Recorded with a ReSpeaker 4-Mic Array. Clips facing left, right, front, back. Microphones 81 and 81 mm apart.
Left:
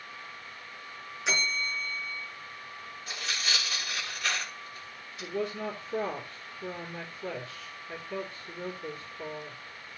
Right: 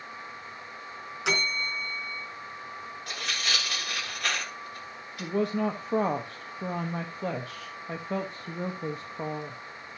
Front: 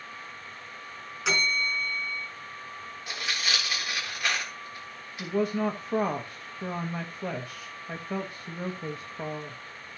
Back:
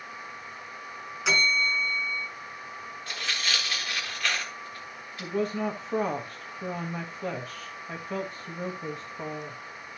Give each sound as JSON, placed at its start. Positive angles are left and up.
{"t": 1.2, "sound": "a bell", "azimuth_deg": -90, "distance_m": 4.0}
{"t": 3.1, "sound": "tearing paper", "azimuth_deg": -75, "distance_m": 3.5}
{"t": 5.2, "sound": "a woman speaking", "azimuth_deg": -80, "distance_m": 1.2}